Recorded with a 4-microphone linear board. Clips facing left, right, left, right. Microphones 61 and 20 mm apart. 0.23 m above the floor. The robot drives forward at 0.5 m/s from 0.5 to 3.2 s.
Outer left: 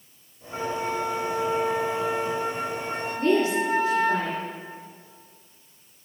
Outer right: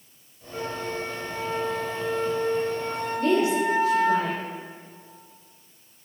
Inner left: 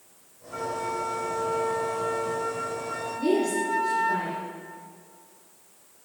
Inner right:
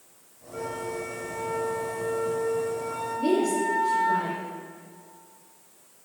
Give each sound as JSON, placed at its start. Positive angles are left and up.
{"t": 0.5, "sound": "a flute", "side_deg": 60, "distance_m": 2.0}
{"t": 3.2, "sound": "a woman speaking", "side_deg": 35, "distance_m": 5.5}